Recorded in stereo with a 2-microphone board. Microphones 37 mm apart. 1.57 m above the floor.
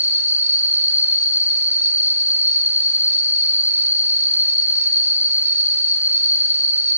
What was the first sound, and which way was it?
An insect, 60° right (ahead or behind).